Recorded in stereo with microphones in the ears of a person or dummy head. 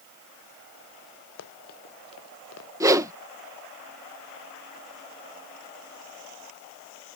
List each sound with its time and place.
1.4 s running footsteps: 85° left
2.8 s a whoosh: 15° right (ahead or behind)